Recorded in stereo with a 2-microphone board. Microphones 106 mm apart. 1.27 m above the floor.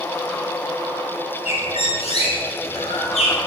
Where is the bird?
80° left, 2.5 m.